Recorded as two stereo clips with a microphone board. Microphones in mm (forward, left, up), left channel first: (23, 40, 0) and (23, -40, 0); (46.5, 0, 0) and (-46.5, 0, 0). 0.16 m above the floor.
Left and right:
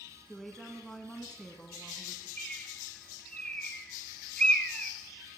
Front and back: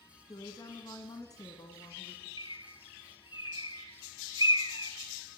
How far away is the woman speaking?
About 1.5 m.